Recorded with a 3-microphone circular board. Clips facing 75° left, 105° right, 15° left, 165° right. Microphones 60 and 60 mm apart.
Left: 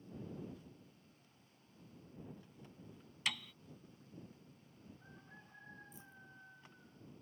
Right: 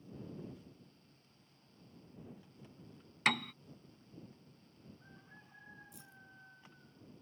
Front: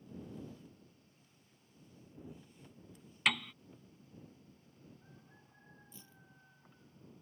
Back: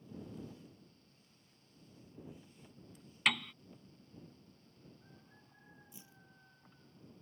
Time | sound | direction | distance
3.2 | a piano | 75° right | ?
5.9 | keys jangling | 90° right | ?